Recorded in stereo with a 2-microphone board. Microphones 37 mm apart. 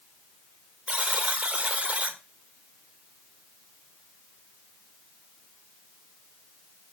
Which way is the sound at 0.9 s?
40° right (ahead or behind).